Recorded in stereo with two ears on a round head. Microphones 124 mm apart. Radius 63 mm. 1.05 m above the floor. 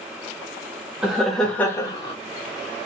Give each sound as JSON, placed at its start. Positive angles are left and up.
{"t": 1.0, "sound": "laughter", "side_deg": -5, "distance_m": 1.2}